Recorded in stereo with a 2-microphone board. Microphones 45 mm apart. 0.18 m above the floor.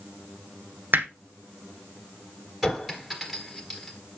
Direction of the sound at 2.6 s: 5° right (ahead or behind).